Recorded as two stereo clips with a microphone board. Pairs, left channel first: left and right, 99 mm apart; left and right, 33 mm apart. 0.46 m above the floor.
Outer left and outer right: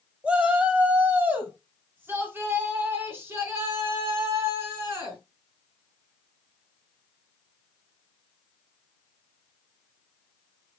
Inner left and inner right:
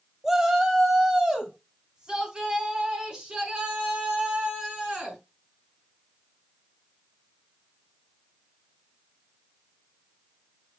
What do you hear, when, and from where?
0.2 s a shout: 10° right (ahead or behind), 2 m; by 5.2 s 25° right (ahead or behind), 6 m